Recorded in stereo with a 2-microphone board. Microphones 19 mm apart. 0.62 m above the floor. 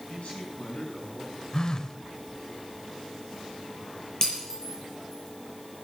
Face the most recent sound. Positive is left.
turn(degrees=35)  # may be behind; listen again after turning